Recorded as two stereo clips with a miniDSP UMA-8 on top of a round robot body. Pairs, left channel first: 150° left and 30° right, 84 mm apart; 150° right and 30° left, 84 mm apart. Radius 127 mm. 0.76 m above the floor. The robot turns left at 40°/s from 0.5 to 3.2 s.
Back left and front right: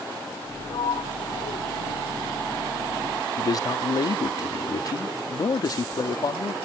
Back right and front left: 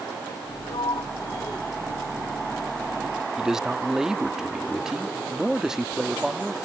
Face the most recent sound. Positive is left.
turn(degrees=115)